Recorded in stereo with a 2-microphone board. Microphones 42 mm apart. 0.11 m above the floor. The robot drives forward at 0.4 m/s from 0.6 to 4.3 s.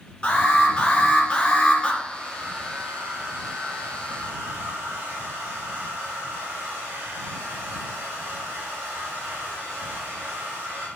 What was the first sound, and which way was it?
An alarm, 20° left (ahead or behind).